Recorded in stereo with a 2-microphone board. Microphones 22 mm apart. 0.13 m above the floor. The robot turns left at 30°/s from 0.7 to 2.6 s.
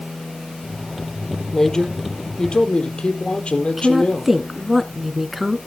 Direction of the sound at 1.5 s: 155° left.